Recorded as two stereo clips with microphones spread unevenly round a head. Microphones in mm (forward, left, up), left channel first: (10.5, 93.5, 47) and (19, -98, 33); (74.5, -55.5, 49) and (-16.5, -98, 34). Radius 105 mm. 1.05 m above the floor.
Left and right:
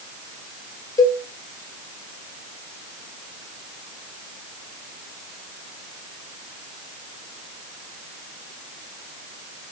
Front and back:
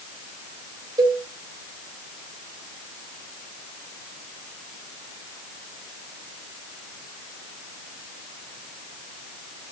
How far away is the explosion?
No explosion in this recording.